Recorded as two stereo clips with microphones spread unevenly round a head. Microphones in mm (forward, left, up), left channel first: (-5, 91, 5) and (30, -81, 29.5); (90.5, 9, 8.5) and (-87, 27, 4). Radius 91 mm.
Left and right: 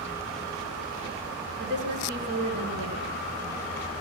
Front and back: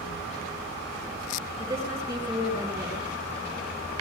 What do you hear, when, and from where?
1.6 s a woman speaking: 110° right, 9.5 m